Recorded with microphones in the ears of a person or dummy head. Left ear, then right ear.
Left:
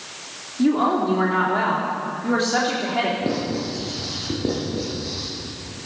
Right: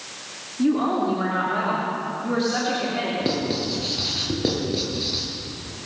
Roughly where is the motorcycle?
No motorcycle in this recording.